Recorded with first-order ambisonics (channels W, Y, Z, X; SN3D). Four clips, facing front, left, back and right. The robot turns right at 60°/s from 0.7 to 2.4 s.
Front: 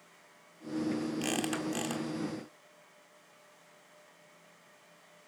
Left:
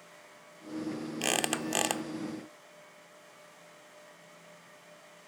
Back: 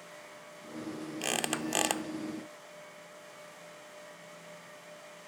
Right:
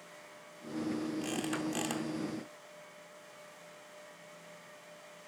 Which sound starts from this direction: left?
A squeak, at 1.2 s.